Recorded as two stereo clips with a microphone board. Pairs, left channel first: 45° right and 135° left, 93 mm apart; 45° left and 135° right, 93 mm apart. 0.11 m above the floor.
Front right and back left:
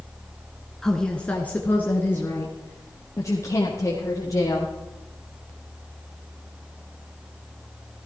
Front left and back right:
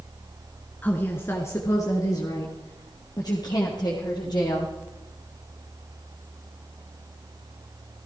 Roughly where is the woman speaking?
Ahead left.